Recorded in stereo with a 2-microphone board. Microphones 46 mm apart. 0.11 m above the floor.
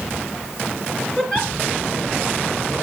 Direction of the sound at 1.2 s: 15° left (ahead or behind).